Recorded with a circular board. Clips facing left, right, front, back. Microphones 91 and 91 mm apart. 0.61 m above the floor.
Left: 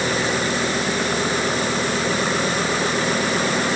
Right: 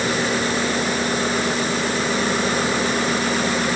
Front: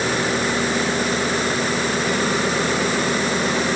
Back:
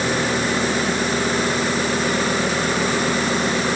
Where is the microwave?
No microwave in this recording.